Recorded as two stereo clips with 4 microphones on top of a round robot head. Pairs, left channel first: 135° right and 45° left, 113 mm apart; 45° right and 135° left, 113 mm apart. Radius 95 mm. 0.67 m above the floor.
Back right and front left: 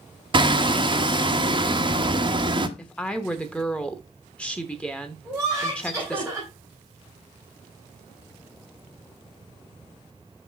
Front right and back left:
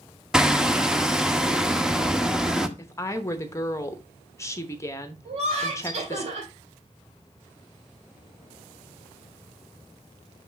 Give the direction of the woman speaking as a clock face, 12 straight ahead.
2 o'clock.